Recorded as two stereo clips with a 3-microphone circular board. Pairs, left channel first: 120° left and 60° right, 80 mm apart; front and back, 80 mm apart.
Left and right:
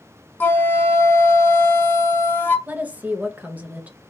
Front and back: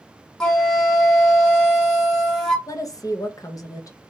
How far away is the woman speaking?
About 0.7 m.